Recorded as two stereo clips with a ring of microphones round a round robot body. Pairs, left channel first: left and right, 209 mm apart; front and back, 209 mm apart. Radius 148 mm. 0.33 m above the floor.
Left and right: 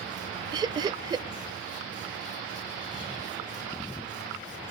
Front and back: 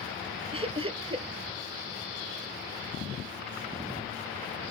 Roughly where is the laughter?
Behind right.